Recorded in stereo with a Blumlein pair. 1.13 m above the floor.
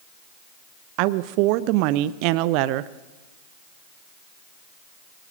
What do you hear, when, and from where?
1.0 s a woman speaking: 45° right, 0.7 m